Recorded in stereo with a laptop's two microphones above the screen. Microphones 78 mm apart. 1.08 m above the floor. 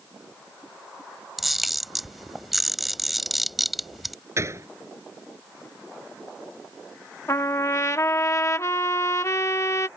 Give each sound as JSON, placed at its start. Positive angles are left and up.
{"t": 1.4, "sound": "a camera shutter", "side_deg": 0}
{"t": 4.4, "sound": "a gunshot", "side_deg": -35}
{"t": 7.3, "sound": "a trumpet", "side_deg": 40}